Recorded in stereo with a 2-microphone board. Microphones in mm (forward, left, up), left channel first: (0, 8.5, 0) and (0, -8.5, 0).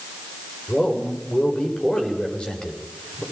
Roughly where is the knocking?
I don't hear knocking.